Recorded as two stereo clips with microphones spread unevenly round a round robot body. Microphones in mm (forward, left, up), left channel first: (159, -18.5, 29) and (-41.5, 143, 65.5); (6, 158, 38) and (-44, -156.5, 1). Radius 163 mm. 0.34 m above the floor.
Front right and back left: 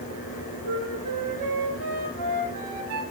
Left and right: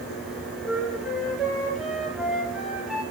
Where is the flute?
175° left, 4 m.